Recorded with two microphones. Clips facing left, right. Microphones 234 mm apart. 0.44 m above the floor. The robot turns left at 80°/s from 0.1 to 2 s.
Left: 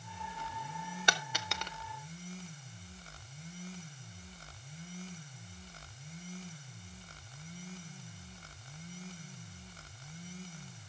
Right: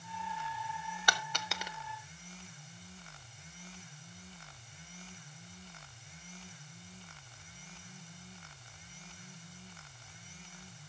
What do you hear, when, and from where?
1.1 s a dropped coin: 25° left (ahead or behind), 0.6 m; by 1.7 s 15° right (ahead or behind), 0.6 m